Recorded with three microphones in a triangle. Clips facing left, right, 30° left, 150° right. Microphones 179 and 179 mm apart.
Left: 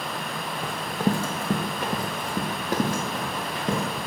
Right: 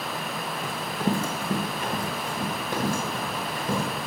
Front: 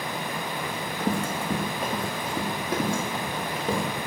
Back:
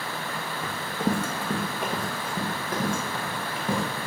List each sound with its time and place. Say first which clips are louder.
0.6 s running footsteps: left 2 dB, back 2 dB; 145° left, 1.6 m; by 3.9 s 100° left, 3.5 m